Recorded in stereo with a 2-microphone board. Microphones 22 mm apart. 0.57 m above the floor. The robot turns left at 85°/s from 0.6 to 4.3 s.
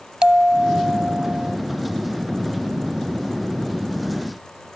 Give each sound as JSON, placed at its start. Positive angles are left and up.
{"t": 0.2, "sound": "a bell", "azimuth_deg": -45}